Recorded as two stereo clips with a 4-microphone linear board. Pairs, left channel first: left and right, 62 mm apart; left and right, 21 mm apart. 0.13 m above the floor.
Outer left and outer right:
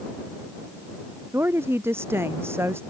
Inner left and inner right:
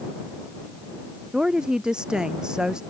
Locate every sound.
1.3 s a woman speaking: 45° right (ahead or behind)